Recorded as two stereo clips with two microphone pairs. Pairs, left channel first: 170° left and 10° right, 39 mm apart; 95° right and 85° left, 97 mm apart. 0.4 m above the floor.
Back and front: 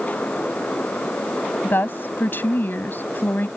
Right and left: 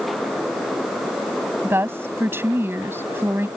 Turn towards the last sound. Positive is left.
turn(degrees=150)